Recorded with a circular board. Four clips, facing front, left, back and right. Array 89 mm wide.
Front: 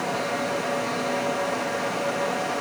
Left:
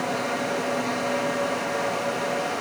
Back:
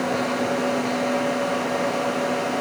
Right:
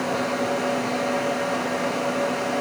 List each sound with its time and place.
Only background noise.